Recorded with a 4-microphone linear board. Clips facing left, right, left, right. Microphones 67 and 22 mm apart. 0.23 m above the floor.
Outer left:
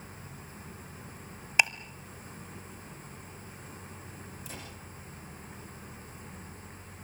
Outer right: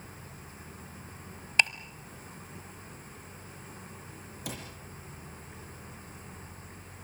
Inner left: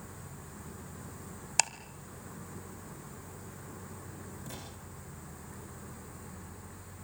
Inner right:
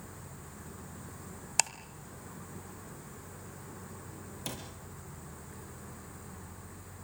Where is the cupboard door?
75° right (ahead or behind), 7.5 m.